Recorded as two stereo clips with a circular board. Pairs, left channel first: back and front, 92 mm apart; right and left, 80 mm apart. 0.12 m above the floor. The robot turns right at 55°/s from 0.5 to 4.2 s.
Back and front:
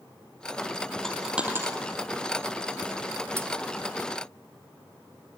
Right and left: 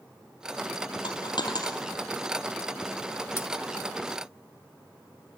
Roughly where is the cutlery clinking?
Ahead right.